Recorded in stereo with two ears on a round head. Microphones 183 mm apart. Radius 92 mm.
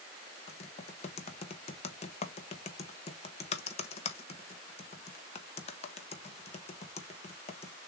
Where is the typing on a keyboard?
35° left (ahead or behind), 0.9 m.